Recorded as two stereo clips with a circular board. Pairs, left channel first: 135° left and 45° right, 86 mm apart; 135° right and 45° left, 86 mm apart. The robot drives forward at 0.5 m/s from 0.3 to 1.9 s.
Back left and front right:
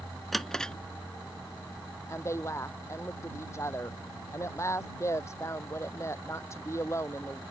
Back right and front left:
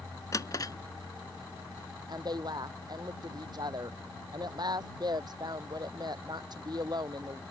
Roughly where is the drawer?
Behind right.